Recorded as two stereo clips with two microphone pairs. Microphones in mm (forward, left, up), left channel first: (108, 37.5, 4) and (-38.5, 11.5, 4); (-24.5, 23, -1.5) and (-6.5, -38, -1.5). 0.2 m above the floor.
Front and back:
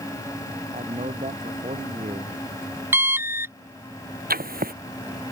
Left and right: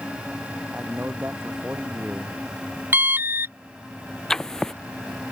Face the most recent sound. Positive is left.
turn(degrees=-170)